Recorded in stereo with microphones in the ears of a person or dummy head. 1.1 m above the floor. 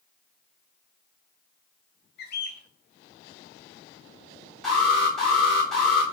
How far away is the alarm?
About 1.4 m.